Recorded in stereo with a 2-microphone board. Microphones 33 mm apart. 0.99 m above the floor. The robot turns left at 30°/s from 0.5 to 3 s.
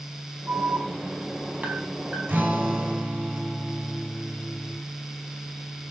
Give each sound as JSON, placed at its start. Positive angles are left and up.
{"t": 0.5, "sound": "an alarm", "side_deg": -80, "distance_m": 4.5}
{"t": 2.3, "sound": "a guitar", "side_deg": -70, "distance_m": 4.0}